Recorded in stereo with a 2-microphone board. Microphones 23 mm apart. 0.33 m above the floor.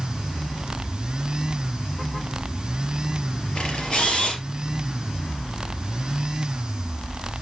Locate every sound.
3.5 s a camera shutter: 35° left (ahead or behind), 3.5 m